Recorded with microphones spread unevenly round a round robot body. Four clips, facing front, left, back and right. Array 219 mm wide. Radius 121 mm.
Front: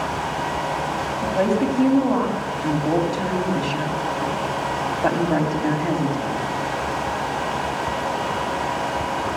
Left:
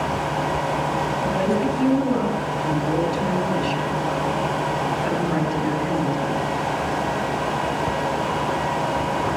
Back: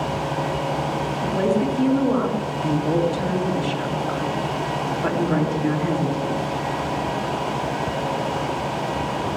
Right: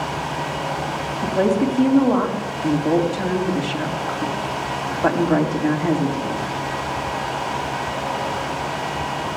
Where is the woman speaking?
50° right, 3 m.